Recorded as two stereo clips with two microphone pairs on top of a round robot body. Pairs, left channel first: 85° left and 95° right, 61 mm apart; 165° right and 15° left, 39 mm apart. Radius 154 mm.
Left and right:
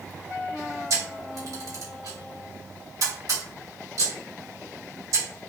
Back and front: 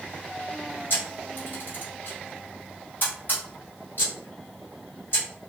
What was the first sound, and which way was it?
A camera shutter, 125° right.